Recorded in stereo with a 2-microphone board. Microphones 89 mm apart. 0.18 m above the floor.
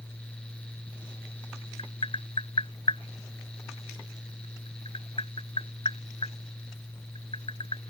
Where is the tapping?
75° left (ahead or behind).